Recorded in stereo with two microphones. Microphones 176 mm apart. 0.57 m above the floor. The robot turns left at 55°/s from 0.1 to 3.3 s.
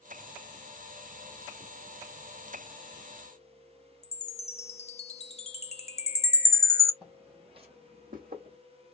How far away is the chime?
About 0.5 m.